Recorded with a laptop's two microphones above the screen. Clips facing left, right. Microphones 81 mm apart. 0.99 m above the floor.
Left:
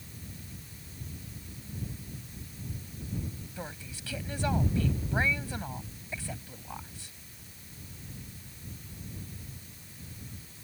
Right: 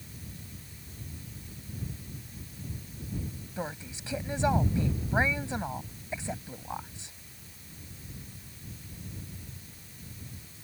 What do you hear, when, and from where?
3.6 s a woman speaking: 20° right (ahead or behind)